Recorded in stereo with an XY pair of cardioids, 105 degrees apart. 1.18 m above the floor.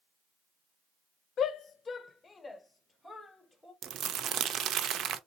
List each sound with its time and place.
1.4 s a shout: 65° left, 0.5 m; by 3.7 s 15° left, 1.8 m
3.8 s crumpling: 60° right, 0.7 m